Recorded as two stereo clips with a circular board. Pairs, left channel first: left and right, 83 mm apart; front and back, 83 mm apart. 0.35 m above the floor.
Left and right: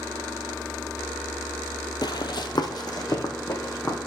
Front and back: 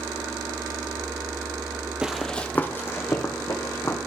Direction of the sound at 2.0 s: 105° left.